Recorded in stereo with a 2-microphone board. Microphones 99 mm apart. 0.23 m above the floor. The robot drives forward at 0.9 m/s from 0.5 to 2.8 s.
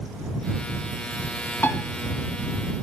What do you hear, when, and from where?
1.6 s a piano: 25° left (ahead or behind), 2.5 m; by 1.8 s 30° left (ahead or behind), 2.5 m